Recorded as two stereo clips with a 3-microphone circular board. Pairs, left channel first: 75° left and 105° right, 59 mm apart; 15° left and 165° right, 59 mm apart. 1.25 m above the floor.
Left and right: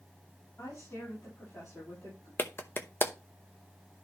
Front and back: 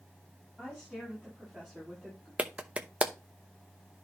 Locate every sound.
0.6 s a woman speaking: 110° left, 6.5 m; by 2.3 s 105° left, 8 m
2.4 s a clap: 125° left, 0.7 m